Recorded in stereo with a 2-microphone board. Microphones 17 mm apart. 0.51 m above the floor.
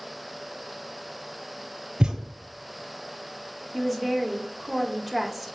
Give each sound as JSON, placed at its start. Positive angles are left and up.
{"t": 2.0, "sound": "a thud", "side_deg": -50, "distance_m": 1.4}
{"t": 3.7, "sound": "a woman speaking", "side_deg": 5, "distance_m": 0.9}